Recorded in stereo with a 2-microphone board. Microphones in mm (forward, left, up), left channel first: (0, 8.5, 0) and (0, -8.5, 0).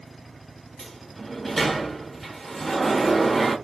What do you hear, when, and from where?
0.8 s a sliding door: 5° left (ahead or behind), 0.7 m